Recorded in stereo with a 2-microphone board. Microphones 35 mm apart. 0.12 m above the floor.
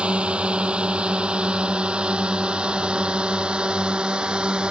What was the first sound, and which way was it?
A drone, 30° right (ahead or behind).